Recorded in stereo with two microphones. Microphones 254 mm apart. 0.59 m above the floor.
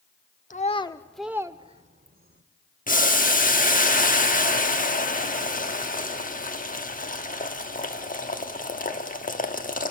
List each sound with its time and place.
0.5 s a child speaking: 30° left (ahead or behind), 0.7 m; by 2.4 s 40° right (ahead or behind), 1.0 m
2.9 s boiling: 30° left (ahead or behind), 1.2 m